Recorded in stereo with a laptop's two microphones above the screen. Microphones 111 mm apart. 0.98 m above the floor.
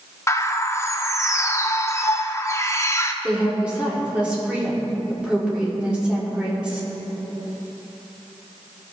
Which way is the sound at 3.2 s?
10° right (ahead or behind).